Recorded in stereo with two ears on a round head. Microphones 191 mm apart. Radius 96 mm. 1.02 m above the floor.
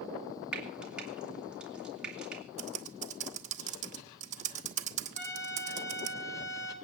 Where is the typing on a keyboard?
30° right (ahead or behind), 1.2 m.